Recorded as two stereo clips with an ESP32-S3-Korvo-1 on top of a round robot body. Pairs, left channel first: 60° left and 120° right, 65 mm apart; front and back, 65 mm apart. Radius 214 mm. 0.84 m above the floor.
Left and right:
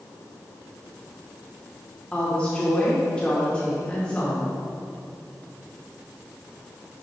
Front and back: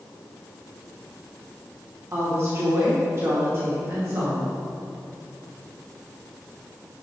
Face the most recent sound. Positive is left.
turn(degrees=130)